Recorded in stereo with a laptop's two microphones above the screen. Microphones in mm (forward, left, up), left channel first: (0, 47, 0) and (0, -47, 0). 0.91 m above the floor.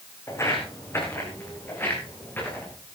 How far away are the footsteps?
About 4 m.